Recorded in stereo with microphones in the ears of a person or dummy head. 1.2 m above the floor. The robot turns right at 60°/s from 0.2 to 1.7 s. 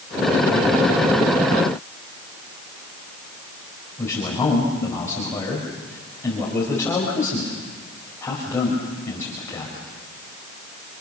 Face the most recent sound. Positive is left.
turn(degrees=15)  # may be behind; listen again after turning